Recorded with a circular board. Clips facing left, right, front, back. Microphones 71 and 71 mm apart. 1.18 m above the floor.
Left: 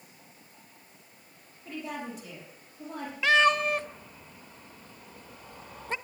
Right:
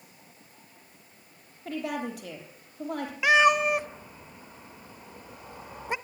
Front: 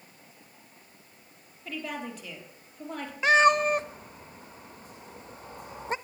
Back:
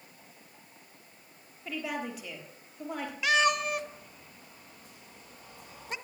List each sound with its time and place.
1.6 s a woman speaking: 100° right, 3.5 m
3.2 s a cat meowing: 25° right, 0.5 m